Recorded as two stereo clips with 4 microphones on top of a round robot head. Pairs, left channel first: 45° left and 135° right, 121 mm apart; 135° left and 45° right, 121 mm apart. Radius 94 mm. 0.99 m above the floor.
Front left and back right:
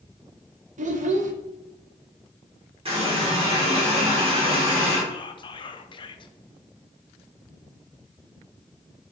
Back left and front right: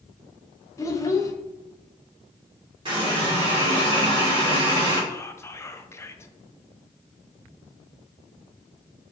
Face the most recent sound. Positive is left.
turn(degrees=75)